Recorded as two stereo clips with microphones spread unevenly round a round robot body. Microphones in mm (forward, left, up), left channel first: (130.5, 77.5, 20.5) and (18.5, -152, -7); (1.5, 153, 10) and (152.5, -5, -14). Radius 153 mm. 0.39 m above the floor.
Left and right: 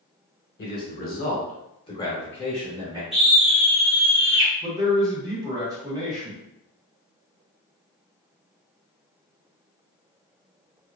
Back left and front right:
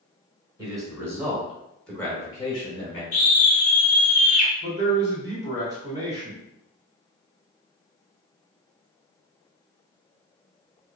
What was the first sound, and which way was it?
A man speaking, 20° left.